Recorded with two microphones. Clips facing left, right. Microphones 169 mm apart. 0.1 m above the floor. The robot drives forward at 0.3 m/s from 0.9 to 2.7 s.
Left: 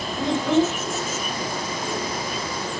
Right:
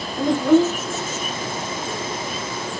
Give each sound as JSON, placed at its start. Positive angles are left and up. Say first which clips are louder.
{"t": 0.2, "sound": "a child speaking", "louder": "right 5 dB", "side_deg": -10, "distance_m": 2.0}